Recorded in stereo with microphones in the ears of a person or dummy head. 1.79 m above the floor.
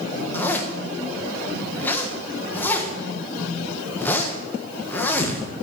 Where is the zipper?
10° left (ahead or behind), 1.3 m.